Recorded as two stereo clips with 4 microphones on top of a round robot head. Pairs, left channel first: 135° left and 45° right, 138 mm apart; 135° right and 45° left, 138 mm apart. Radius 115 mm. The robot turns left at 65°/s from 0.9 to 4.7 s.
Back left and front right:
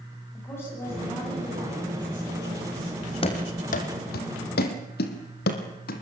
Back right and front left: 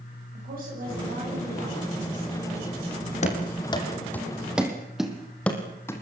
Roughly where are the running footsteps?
Behind.